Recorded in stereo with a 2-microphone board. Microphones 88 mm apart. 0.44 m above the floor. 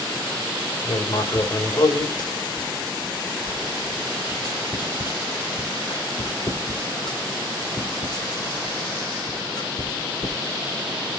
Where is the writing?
50° left (ahead or behind), 2 m.